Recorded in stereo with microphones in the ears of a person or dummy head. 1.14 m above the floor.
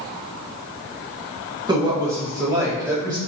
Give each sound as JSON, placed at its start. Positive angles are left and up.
{"t": 1.7, "sound": "a woman speaking", "side_deg": -20, "distance_m": 1.0}